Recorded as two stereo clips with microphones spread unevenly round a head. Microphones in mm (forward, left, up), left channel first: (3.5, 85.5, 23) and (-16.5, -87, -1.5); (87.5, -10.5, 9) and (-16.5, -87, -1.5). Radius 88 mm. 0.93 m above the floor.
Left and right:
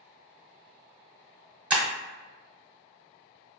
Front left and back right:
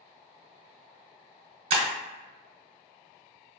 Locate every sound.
1.7 s breaking glass: 175° left, 0.9 m